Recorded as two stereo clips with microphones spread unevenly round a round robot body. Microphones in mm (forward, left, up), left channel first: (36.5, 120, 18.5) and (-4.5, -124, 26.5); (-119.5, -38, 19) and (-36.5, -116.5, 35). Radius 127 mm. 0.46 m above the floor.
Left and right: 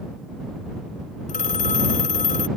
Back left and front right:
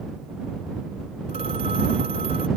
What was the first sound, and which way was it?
A phone ringing, 20° left.